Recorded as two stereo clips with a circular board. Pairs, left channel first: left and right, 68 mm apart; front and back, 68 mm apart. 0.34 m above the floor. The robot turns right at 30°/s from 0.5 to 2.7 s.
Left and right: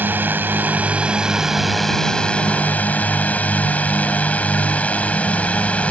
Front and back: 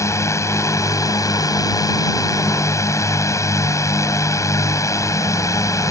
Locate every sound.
0.0 s a drone: 35° right; by 5.9 s 25° left